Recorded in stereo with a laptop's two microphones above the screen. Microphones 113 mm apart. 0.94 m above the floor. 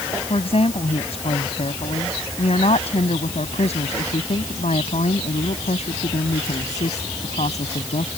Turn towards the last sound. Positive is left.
turn(degrees=85)